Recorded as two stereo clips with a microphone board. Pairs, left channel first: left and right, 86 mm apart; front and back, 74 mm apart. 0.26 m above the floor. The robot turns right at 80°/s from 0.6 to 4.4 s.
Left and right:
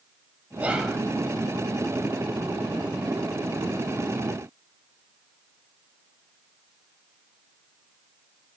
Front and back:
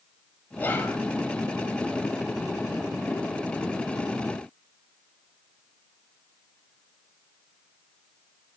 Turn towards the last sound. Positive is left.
turn(degrees=-95)